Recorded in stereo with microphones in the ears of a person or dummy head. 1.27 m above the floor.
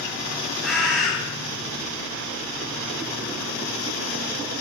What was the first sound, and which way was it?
A bird, 5° right (ahead or behind).